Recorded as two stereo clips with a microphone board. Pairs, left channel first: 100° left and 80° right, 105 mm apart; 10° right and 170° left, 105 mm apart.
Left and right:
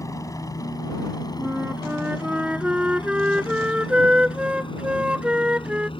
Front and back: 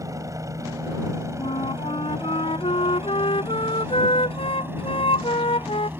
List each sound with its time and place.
0.0 s a helicopter: 135° left; by 6.0 s 100° left
1.4 s a flute: straight ahead